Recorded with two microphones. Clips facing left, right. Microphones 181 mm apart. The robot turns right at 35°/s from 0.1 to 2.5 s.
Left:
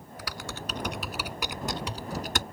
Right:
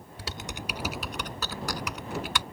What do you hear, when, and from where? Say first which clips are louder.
0.2 s typing on a keyboard: even; 30° right (ahead or behind); by 2.4 s 50° left (ahead or behind)